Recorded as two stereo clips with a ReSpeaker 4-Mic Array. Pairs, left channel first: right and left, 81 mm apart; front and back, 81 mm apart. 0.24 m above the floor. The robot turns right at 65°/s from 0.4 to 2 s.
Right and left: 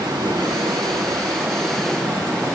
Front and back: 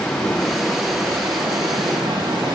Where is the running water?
80° left, 8.5 m; by 2.6 s 175° right, 8.5 m.